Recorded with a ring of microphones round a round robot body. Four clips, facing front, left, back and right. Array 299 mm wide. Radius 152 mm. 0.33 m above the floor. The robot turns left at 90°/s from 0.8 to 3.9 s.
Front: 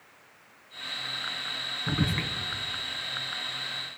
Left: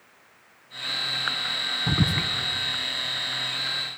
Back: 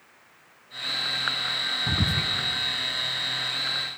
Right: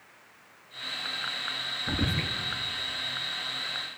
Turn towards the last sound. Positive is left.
turn(degrees=-75)